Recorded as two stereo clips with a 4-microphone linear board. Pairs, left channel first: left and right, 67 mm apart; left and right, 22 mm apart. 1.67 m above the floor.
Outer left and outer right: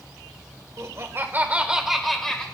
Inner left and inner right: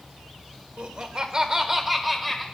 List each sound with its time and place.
0.8 s laughter: 55° right (ahead or behind), 1.6 m; by 2.5 s 10° left (ahead or behind), 1.8 m